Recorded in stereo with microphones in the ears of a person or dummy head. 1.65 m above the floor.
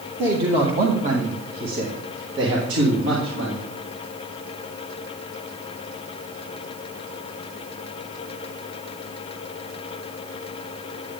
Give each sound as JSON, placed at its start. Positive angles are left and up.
{"t": 0.2, "sound": "a man speaking", "side_deg": -25, "distance_m": 1.9}